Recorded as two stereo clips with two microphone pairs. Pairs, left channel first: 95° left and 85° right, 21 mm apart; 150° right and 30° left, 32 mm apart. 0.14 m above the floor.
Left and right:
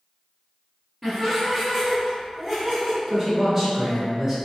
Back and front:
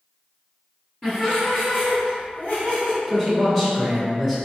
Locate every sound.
1.0 s laughter: 140° right, 1.4 m; by 3.0 s 155° right, 2.5 m
3.1 s a man speaking: 85° right, 1.1 m